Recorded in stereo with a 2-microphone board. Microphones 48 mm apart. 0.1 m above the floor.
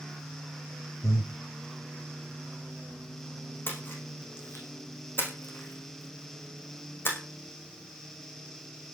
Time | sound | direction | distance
1.0 | breathing | 65° left (ahead or behind) | 2.5 m
3.7 | a splash | 45° left (ahead or behind) | 5 m